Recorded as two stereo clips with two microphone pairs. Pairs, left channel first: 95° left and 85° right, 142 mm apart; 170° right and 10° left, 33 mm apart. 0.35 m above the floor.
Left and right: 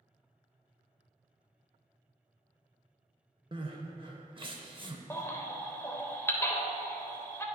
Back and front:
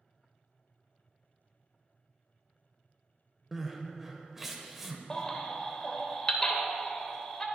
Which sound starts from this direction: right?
Crying, at 3.5 s.